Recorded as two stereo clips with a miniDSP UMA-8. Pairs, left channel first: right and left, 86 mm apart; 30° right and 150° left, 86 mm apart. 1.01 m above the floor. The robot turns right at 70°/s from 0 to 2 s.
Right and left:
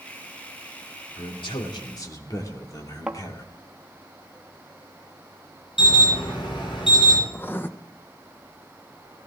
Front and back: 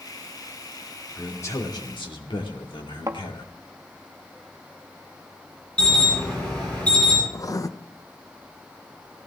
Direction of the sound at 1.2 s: 105° right.